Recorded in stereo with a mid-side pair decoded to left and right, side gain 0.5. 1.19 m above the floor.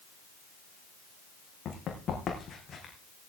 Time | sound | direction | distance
1.6 | running footsteps | 55° left | 4.5 m